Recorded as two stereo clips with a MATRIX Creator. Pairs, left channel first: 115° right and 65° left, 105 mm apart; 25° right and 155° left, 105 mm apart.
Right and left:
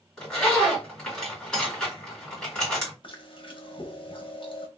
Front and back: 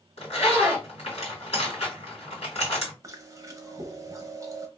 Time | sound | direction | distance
0.2 | a zipper | 30° right | 2 m
3.0 | chewing | 145° right | 0.7 m